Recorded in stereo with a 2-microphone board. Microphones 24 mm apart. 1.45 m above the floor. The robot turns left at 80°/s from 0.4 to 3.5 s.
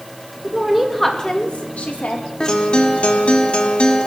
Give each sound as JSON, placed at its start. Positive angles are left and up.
{"t": 0.4, "sound": "a woman speaking", "azimuth_deg": -150, "distance_m": 3.0}
{"t": 2.4, "sound": "a guitar", "azimuth_deg": 145, "distance_m": 1.7}